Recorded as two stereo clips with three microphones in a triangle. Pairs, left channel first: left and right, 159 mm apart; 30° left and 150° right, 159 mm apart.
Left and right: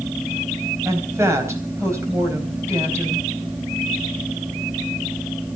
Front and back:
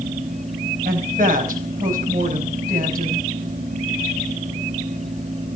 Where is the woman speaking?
160° right, 4 m.